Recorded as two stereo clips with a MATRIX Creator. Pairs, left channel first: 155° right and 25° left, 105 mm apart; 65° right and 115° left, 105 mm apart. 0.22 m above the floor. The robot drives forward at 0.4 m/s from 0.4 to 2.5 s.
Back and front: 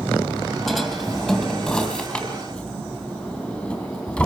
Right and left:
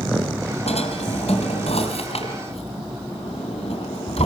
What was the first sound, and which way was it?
A drawer, 70° right.